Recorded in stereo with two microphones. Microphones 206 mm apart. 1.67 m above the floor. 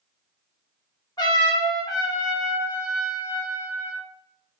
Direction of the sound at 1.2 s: 20° left (ahead or behind).